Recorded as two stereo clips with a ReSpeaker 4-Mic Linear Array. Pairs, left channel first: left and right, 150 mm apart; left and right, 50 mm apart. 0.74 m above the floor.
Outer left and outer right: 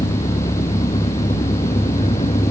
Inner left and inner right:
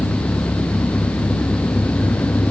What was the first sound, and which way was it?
An engine running, 40° left (ahead or behind).